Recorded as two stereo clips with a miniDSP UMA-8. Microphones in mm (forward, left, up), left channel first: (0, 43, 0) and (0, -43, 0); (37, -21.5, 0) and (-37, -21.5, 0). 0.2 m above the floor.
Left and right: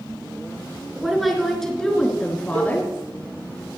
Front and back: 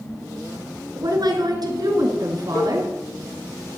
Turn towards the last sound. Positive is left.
turn(degrees=-55)